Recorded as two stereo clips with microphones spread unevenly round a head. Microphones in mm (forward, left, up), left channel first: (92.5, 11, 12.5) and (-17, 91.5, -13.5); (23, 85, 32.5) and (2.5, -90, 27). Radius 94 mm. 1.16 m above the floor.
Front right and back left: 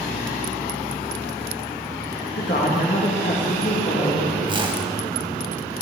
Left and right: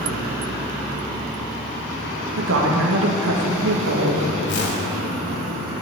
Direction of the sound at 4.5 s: 90° left.